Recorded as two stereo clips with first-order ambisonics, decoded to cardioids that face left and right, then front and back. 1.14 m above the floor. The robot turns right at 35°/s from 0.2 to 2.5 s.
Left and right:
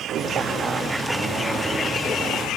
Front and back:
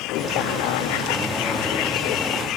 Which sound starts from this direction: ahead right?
A vehicle, at 0.0 s.